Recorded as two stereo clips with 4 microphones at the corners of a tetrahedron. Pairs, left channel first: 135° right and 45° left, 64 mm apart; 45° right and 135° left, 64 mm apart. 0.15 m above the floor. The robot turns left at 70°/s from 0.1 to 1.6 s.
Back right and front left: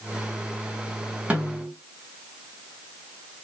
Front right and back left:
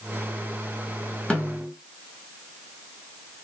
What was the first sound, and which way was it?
A snare drum, 5° left.